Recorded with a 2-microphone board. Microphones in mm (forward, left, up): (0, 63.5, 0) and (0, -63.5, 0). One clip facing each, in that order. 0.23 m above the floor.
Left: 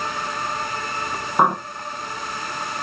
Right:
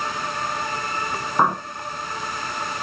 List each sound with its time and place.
1.4 s a bird: 10° left (ahead or behind), 1.6 m